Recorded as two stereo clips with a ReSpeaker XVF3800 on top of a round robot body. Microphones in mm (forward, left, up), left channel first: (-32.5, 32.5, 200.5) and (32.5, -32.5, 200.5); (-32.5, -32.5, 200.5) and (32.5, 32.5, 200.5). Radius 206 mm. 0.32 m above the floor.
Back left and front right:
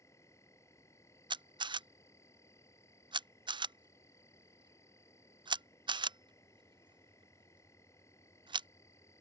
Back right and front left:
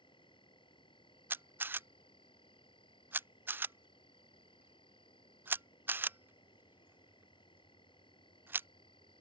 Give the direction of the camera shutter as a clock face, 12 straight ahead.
1 o'clock.